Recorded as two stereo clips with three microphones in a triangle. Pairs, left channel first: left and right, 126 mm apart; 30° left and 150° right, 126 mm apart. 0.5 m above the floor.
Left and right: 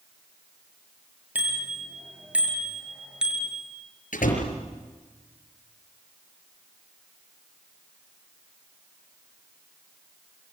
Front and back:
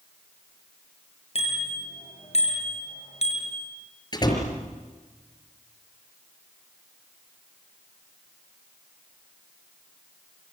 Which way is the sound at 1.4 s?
10° right.